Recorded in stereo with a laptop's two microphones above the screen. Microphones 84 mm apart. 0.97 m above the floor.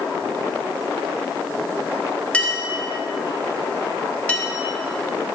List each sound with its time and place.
2.3 s a clink: 15° left (ahead or behind), 1.3 m